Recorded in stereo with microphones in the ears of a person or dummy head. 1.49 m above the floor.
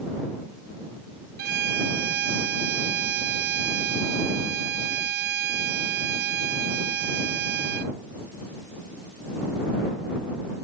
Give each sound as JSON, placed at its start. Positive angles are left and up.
{"t": 1.4, "sound": "a violin", "side_deg": -55}